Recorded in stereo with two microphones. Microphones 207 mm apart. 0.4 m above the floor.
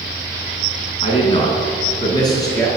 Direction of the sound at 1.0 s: 30° left (ahead or behind).